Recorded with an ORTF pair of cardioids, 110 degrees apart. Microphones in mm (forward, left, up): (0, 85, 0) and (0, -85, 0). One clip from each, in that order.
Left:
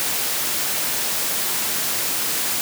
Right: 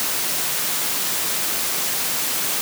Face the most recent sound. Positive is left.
No sound to turn to.